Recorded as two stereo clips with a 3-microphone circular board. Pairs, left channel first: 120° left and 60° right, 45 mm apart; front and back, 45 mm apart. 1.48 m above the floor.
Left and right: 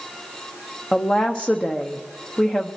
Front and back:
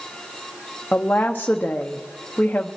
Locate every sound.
0.9 s a woman speaking: 50° left, 0.9 m